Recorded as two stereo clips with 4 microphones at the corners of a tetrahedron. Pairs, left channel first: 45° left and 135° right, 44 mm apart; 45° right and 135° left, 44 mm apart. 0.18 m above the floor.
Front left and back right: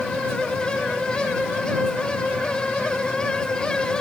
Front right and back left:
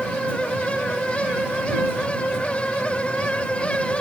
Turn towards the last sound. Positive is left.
No sound to turn to.